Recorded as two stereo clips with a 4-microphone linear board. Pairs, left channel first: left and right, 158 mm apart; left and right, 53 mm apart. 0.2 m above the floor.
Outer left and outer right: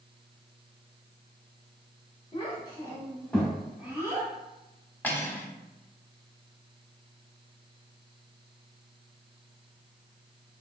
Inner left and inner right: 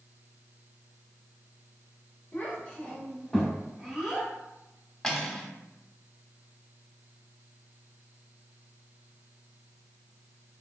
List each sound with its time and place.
2.3 s a child speaking: 35° left (ahead or behind), 1.3 m; by 4.3 s 25° right (ahead or behind), 1.2 m
5.0 s cutlery clinking: 10° left (ahead or behind), 0.6 m